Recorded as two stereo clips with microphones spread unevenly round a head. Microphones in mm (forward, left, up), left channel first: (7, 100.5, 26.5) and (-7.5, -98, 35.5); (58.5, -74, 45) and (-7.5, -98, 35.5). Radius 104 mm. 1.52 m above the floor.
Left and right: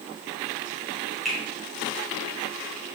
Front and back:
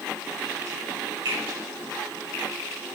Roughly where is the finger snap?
Behind.